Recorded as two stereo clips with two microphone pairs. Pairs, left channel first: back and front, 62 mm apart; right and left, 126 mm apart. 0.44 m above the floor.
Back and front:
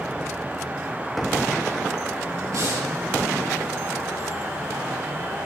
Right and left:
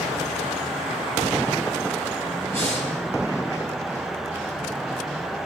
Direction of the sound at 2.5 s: 20° right.